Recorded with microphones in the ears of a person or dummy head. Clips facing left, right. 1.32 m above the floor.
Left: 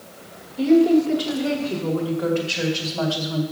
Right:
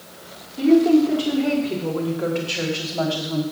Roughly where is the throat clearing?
No throat clearing in this recording.